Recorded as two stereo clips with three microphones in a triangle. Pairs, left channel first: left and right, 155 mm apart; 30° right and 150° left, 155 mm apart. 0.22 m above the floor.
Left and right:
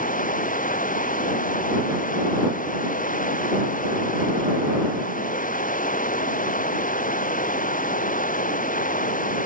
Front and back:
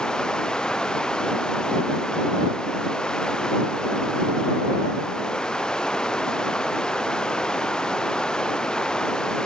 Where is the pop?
I don't hear a pop.